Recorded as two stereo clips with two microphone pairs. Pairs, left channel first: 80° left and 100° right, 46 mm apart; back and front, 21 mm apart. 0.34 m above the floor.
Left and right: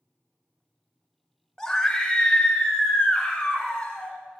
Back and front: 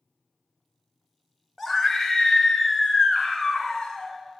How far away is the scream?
About 0.8 m.